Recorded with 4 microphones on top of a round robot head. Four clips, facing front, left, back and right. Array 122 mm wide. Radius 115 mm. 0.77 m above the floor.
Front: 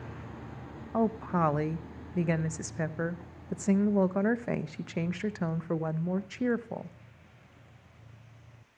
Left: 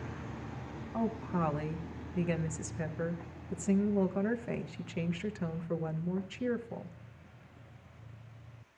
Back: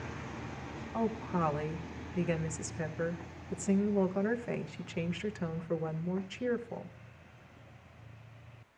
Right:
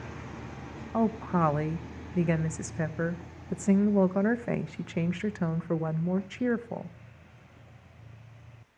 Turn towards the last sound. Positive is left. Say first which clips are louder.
# right 7 dB, front 5 dB
turn(degrees=-50)